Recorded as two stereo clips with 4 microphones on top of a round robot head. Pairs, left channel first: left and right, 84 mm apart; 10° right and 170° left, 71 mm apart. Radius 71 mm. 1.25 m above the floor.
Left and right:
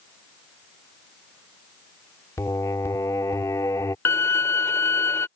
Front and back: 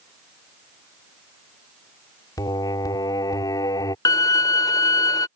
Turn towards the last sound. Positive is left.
turn(degrees=25)